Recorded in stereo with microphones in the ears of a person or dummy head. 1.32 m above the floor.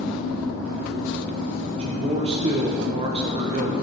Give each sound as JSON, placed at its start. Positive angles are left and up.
{"t": 1.8, "sound": "a man speaking", "side_deg": -40, "distance_m": 0.8}